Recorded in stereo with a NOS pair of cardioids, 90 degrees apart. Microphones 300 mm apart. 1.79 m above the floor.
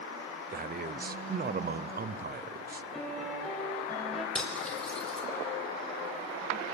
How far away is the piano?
About 7 m.